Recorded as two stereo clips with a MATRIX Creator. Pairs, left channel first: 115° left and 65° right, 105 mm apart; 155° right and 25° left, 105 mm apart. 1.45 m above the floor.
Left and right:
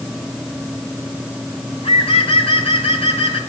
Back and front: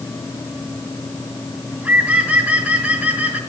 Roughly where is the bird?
Left.